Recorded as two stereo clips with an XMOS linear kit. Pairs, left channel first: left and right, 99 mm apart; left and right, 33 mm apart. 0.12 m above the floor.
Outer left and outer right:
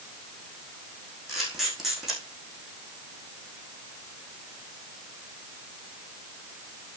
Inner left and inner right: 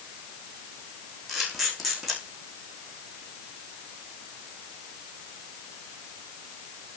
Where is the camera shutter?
5° right (ahead or behind), 5 m.